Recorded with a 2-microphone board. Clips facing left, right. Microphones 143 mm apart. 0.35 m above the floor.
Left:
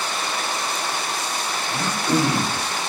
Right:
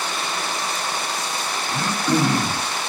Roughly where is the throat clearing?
Right.